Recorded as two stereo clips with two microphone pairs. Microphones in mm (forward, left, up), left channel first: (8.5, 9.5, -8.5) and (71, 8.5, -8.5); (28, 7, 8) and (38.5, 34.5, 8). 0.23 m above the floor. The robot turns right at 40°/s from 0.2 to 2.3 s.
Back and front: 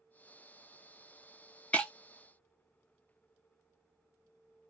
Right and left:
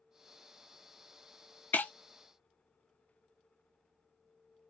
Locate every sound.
1.7 s breaking glass: 110° right, 0.6 m; by 1.9 s 100° right, 0.6 m